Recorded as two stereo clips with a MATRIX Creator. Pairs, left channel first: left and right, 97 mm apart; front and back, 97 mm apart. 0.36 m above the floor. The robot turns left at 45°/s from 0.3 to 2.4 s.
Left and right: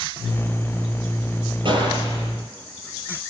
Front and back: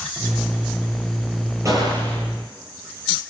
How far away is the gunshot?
About 9 m.